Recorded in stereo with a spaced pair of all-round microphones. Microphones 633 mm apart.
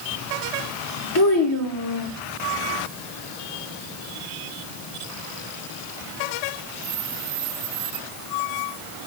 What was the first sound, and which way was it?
A child speaking, 40° left (ahead or behind).